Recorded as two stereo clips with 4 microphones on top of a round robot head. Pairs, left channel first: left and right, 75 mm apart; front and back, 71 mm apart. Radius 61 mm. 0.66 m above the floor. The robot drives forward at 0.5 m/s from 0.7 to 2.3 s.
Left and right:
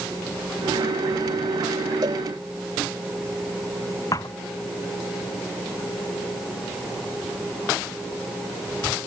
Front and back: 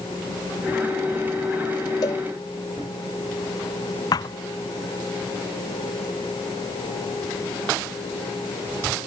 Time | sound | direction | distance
2.0 | a cowbell | 40° right | ?
4.1 | a thud | 30° left | ?